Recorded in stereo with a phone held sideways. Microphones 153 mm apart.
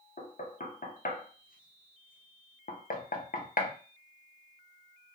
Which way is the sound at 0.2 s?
70° left (ahead or behind).